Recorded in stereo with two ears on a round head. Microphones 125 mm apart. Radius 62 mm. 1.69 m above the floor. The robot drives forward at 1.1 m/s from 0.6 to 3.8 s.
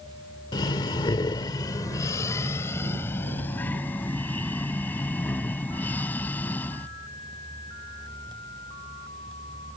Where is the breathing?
30° left (ahead or behind); by 6.9 s 15° left (ahead or behind).